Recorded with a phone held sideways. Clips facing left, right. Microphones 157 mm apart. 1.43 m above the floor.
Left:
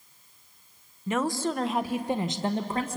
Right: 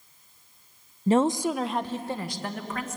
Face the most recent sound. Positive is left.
turn(degrees=35)  # may be behind; listen again after turning